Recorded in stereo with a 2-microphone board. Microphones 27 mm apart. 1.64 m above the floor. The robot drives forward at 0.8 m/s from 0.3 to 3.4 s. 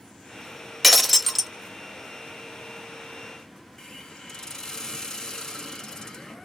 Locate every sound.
0.8 s breaking glass: centre (ahead or behind), 1.0 m
3.8 s a hiss: 20° left (ahead or behind), 1.1 m